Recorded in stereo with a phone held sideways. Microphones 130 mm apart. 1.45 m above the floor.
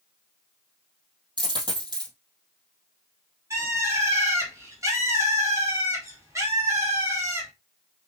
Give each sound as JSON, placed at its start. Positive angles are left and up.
{"t": 1.4, "sound": "a dropped coin", "side_deg": -35, "distance_m": 2.5}
{"t": 3.5, "sound": "a bird", "side_deg": -25, "distance_m": 2.0}